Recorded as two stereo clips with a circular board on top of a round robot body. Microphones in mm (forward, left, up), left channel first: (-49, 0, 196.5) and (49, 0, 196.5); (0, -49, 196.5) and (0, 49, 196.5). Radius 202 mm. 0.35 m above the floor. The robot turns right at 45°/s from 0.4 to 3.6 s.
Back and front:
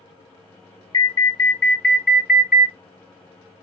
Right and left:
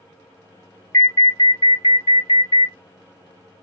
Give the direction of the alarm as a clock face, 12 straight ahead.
5 o'clock.